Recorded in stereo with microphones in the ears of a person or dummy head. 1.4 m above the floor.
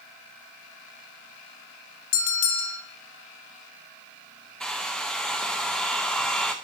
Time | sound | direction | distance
2.1 | a bell | 65° left (ahead or behind) | 0.9 m
4.6 | a hair dryer | centre (ahead or behind) | 0.6 m